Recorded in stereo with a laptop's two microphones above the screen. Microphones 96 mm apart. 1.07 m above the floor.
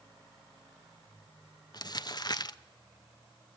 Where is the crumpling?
45° left (ahead or behind), 0.7 m.